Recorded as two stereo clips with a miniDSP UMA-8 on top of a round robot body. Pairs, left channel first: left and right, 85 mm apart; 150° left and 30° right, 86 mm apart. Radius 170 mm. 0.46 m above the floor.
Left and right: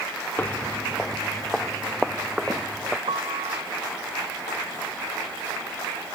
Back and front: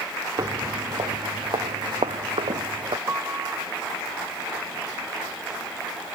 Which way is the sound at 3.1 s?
95° right.